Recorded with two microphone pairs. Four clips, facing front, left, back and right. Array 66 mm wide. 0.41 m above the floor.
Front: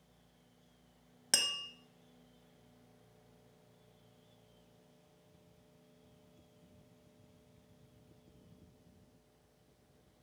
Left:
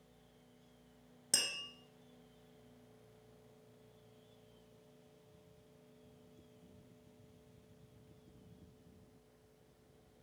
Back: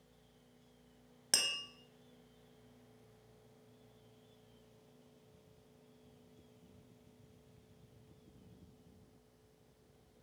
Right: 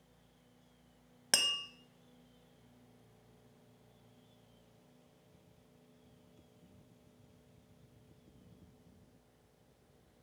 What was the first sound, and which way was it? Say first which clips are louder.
Tapping: right 7 dB, front 2 dB; 85° right.